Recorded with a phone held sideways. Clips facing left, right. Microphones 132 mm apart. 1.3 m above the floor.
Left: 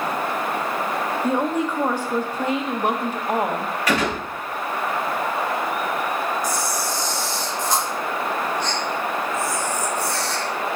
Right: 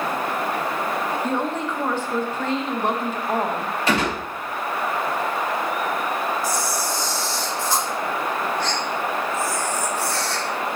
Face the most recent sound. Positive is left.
turn(degrees=20)  # may be behind; listen again after turning